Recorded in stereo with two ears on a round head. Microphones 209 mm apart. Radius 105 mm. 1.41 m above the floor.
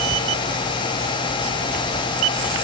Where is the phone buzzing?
No phone buzzing in this recording.